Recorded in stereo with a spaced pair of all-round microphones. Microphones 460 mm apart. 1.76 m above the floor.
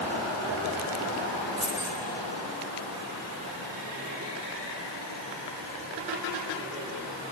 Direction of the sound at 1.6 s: 35° right (ahead or behind).